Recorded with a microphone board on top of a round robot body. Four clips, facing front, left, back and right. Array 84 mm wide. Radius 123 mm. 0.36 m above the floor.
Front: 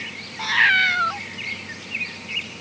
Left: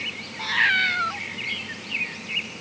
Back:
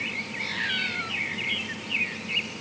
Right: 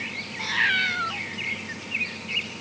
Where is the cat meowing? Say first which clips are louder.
Left 3 dB, front 14 dB; 10° left.